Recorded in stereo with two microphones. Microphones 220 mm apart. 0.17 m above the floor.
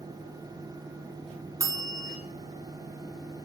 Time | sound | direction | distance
1.6 | a bell | 15° right (ahead or behind) | 0.6 m